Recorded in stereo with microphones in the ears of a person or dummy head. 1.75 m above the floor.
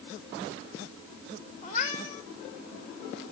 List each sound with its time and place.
1.6 s a cat meowing: 45° left (ahead or behind), 3 m